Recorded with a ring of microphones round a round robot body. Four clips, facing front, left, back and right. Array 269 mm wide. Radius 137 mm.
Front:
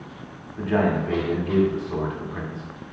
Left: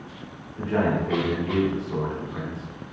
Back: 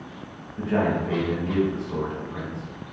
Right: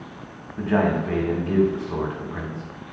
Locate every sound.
0.6 s a man speaking: 80° right, 1.0 m